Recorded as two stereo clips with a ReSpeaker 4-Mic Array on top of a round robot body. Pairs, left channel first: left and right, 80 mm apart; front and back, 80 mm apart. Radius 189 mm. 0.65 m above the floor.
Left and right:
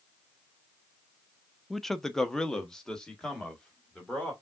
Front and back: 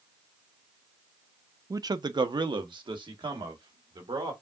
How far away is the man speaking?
About 0.5 m.